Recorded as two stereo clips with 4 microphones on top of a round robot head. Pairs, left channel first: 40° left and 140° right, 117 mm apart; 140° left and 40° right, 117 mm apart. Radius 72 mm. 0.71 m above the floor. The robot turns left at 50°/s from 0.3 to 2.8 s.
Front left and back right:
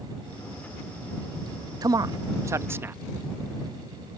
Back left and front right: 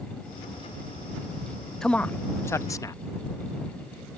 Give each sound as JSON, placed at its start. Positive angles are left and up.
{"t": 1.8, "sound": "a man speaking", "azimuth_deg": -140}